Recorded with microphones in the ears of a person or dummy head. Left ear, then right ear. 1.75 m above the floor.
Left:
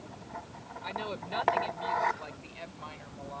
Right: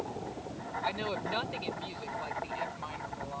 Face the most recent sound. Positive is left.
turn(degrees=10)  # may be behind; listen again after turning